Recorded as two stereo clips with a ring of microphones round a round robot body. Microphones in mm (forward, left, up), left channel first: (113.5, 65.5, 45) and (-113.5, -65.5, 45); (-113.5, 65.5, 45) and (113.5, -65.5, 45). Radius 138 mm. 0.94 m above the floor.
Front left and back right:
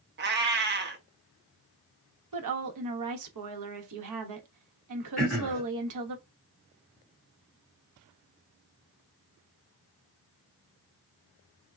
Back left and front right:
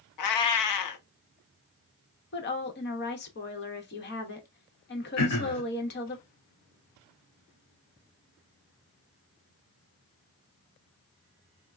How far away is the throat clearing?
About 1.3 m.